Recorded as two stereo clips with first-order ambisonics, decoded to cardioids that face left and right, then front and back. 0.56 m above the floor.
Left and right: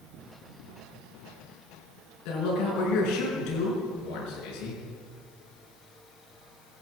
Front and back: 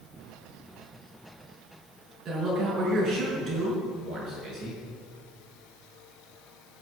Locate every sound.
2.2 s a man speaking: 115° left, 6 m